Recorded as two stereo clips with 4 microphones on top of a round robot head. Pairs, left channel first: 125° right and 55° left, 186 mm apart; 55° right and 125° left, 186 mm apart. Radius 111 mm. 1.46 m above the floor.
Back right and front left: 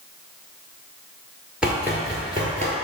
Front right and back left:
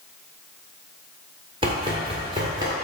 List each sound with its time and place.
1.6 s running footsteps: 135° left, 1.5 m; by 2.7 s 70° left, 1.6 m